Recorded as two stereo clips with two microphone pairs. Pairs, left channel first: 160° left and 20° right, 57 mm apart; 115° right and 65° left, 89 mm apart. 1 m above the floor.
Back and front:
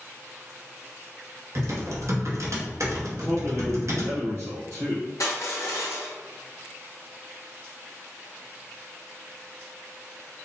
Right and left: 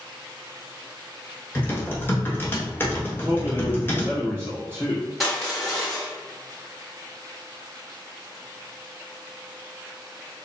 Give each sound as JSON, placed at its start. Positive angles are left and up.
{"t": 1.6, "sound": "typing on a keyboard", "azimuth_deg": -45, "distance_m": 0.8}
{"t": 3.1, "sound": "a man speaking", "azimuth_deg": -40, "distance_m": 1.7}
{"t": 5.2, "sound": "crushing", "azimuth_deg": 155, "distance_m": 1.3}